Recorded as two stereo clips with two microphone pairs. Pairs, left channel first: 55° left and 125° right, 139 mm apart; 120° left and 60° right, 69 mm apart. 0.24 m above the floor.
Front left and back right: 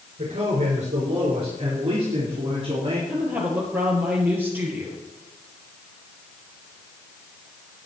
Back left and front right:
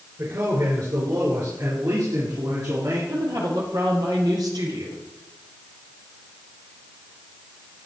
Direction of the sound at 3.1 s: 50° right.